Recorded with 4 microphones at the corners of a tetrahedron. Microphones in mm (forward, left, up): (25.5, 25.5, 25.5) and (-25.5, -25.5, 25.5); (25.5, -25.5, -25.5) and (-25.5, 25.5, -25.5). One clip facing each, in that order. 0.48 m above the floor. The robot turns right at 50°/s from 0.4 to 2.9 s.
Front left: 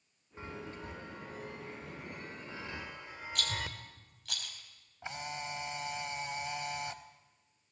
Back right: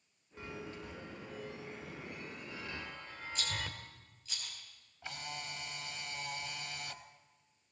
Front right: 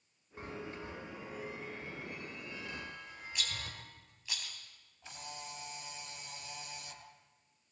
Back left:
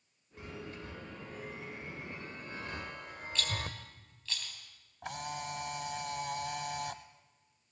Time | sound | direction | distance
0.4 | a chime | 5° right | 1.4 m
3.4 | a rattle | 30° left | 3 m
5.0 | a camera shutter | 115° left | 1.0 m